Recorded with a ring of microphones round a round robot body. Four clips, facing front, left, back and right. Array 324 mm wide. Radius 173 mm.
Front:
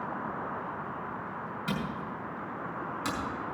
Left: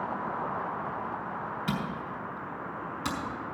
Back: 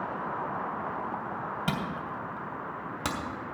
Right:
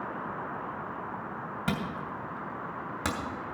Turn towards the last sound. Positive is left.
turn(degrees=-135)